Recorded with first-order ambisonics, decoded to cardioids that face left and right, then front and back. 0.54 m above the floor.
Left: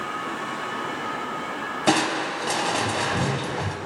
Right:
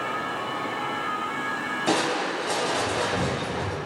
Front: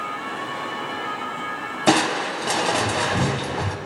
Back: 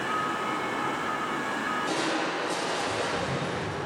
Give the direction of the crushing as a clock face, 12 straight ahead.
11 o'clock.